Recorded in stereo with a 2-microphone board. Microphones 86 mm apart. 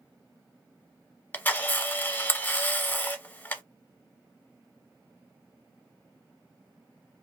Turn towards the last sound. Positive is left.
turn(degrees=25)  # may be behind; listen again after turning